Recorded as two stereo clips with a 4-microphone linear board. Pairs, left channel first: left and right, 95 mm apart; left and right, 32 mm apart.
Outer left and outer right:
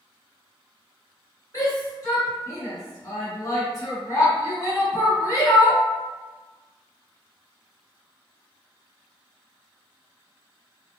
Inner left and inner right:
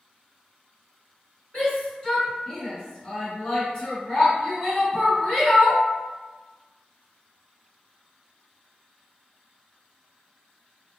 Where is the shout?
35° left (ahead or behind), 1.9 m.